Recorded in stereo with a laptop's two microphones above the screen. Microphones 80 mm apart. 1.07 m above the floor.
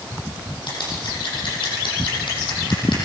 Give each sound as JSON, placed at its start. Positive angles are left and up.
{"t": 0.7, "sound": "scissors", "side_deg": 75, "distance_m": 9.5}